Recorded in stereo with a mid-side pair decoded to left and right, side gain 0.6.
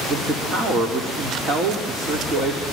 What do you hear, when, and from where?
0.1 s a man speaking: 35° right, 4.5 m